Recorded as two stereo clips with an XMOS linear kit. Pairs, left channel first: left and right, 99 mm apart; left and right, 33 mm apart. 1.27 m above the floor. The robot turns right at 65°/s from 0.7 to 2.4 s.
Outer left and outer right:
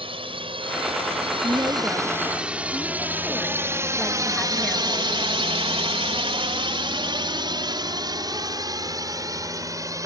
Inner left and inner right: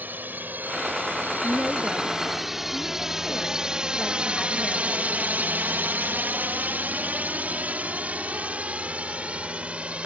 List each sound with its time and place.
0.0 s a drone: 70° right (ahead or behind); by 10.1 s 35° right (ahead or behind)
1.4 s a woman speaking: 55° right; by 5.1 s 10° left